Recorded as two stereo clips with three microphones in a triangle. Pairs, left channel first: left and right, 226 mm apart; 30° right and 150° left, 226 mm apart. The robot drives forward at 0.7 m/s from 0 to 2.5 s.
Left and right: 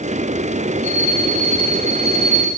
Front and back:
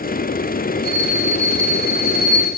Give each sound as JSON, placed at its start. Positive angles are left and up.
{"t": 0.8, "sound": "a bell", "azimuth_deg": 10, "distance_m": 3.5}